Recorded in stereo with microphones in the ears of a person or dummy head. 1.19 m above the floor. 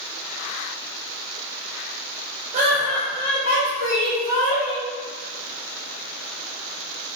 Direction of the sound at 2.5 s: 45° right (ahead or behind).